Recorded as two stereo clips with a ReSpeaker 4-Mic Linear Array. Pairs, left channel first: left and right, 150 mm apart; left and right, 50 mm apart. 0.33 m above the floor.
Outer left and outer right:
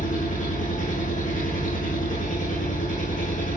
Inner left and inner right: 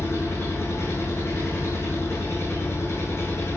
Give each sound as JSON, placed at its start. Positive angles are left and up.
{"t": 0.0, "sound": "an engine running", "side_deg": 60, "distance_m": 7.0}